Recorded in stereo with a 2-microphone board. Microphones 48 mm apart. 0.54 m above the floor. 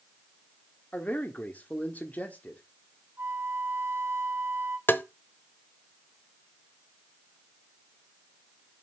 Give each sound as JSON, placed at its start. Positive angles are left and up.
{"t": 0.9, "sound": "a man speaking", "side_deg": 35, "distance_m": 1.1}
{"t": 3.2, "sound": "a flute", "side_deg": -65, "distance_m": 1.4}
{"t": 4.9, "sound": "tapping", "side_deg": 45, "distance_m": 0.7}